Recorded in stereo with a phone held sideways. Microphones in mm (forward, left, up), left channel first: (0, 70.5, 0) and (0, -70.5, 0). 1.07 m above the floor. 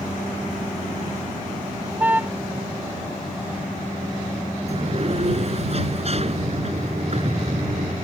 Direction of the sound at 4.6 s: 50° right (ahead or behind).